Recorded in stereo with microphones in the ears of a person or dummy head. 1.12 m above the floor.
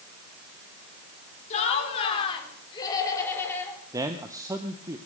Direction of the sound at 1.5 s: 40° left (ahead or behind).